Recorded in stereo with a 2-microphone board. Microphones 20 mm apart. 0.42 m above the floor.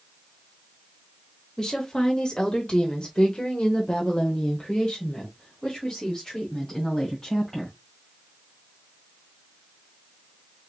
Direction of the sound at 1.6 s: 30° left (ahead or behind).